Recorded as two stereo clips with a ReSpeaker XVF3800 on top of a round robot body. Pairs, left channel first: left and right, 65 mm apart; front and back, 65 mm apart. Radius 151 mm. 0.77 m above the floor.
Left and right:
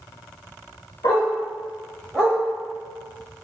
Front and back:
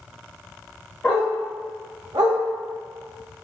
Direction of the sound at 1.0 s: 70° left.